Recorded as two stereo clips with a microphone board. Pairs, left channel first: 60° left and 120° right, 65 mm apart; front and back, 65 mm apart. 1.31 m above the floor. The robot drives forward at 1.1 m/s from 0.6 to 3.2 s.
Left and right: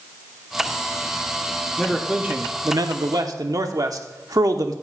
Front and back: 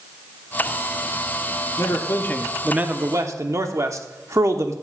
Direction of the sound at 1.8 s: 30° right.